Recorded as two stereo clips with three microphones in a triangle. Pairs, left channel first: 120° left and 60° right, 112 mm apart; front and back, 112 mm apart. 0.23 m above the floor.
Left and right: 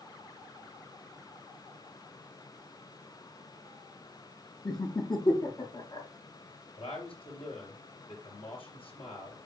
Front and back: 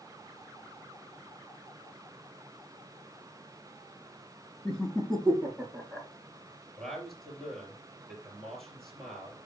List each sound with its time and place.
4.7 s laughter: 85° left, 1.5 m
6.8 s a man speaking: 90° left, 4 m